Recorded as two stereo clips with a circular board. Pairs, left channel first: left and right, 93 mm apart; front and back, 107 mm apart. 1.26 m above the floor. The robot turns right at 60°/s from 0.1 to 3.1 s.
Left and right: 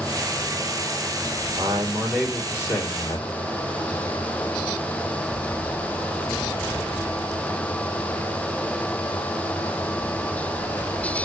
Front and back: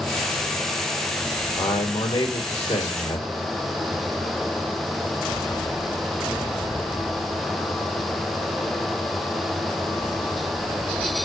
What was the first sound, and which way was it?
A man speaking, 40° right.